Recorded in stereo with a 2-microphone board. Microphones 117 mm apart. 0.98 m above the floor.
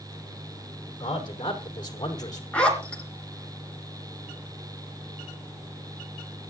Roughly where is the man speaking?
Left.